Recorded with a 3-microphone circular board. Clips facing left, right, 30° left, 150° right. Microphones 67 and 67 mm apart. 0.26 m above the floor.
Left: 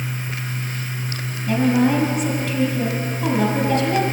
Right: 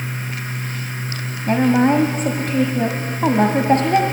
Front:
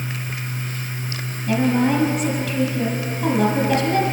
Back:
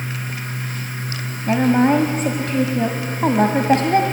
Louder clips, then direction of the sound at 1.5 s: Right 2 dB, back 3 dB; 120° right.